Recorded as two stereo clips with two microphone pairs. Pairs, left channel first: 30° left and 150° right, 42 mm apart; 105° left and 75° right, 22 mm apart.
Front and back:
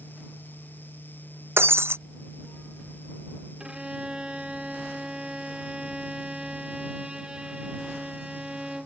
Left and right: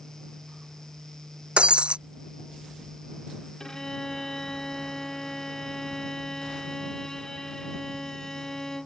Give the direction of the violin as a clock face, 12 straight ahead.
7 o'clock.